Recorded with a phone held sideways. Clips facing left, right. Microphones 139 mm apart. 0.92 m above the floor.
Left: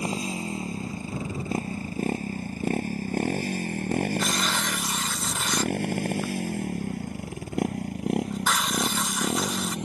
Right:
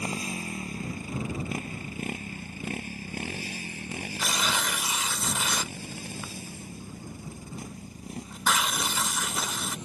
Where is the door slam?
No door slam in this recording.